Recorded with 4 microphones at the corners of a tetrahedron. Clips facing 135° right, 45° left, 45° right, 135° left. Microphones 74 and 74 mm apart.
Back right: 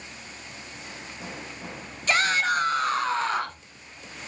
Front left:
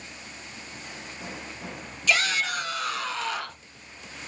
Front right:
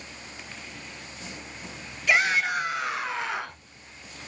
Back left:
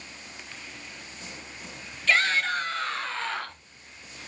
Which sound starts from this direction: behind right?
A shout, at 2.1 s.